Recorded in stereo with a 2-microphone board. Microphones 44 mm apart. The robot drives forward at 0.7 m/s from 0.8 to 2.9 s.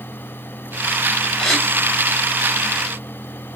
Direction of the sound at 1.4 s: 5° left (ahead or behind).